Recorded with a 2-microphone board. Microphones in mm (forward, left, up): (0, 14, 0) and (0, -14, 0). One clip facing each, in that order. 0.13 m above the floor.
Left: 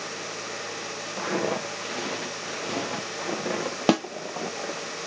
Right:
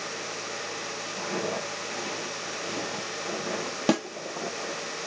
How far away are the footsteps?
About 1.8 m.